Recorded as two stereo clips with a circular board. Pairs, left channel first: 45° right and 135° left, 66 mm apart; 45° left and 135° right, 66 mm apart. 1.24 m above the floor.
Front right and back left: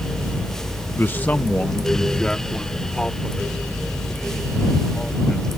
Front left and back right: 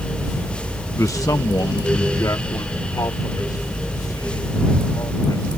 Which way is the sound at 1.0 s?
10° left.